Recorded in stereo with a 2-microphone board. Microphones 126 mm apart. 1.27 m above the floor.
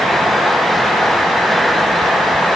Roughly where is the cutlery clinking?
No cutlery clinking in this recording.